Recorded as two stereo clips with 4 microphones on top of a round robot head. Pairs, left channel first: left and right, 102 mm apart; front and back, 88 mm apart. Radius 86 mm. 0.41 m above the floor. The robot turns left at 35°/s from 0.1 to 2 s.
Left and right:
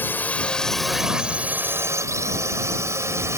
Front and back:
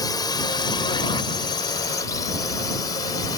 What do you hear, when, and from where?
0.0 s a drone: 25° left; by 3.4 s 35° right